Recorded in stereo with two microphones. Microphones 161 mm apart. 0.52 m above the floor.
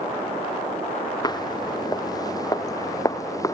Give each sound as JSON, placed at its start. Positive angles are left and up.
{"t": 1.2, "sound": "footsteps", "side_deg": 25}